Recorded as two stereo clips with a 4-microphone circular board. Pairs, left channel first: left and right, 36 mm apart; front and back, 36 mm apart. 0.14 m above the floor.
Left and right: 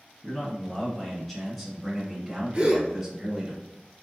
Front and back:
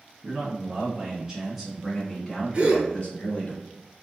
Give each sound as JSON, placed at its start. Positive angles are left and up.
{"t": 0.2, "sound": "a man speaking", "azimuth_deg": 160, "distance_m": 1.7}
{"t": 2.5, "sound": "a gasp", "azimuth_deg": -135, "distance_m": 1.4}